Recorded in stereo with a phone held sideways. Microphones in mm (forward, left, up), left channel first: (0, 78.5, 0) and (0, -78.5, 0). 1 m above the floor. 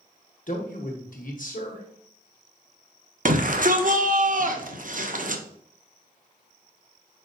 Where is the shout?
60° right (ahead or behind), 0.7 m.